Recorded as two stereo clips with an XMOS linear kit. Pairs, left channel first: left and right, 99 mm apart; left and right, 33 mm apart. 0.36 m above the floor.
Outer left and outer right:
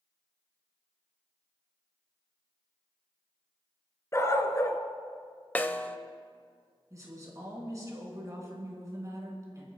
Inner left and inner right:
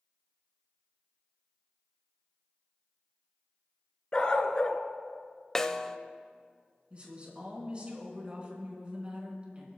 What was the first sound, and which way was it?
A dog barking, 30° left (ahead or behind).